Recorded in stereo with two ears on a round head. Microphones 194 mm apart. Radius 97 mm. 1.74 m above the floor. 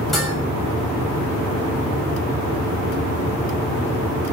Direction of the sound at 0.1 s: Centre (ahead or behind).